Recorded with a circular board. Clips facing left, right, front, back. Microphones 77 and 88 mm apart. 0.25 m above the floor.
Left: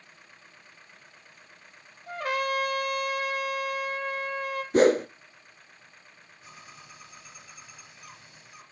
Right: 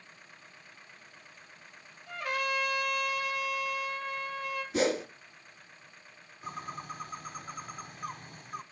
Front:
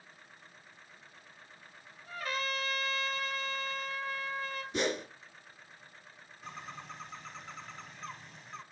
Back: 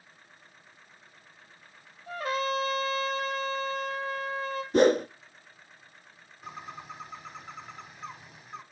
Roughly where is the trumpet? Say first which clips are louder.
Left 4 dB, back 7 dB; behind left.